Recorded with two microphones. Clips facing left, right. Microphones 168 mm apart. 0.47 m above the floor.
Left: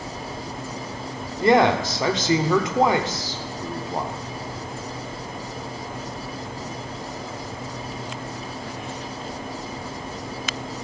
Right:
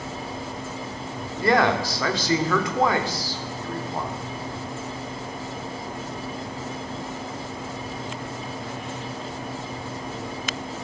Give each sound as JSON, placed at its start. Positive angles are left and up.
{"t": 1.4, "sound": "a man speaking", "side_deg": 20, "distance_m": 0.8}